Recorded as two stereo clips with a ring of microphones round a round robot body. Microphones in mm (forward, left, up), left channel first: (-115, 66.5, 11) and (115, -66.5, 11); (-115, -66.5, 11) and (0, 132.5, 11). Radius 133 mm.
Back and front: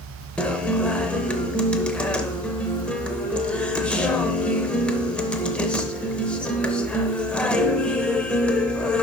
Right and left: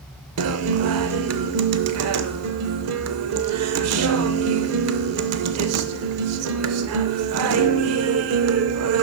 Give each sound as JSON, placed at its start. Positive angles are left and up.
{"t": 0.4, "sound": "a guitar", "azimuth_deg": 65, "distance_m": 0.6}